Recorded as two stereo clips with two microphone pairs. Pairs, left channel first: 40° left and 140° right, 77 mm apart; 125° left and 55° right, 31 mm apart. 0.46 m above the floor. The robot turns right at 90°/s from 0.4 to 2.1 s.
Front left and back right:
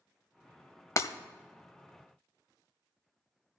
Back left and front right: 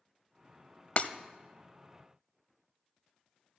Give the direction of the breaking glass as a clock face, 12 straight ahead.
9 o'clock.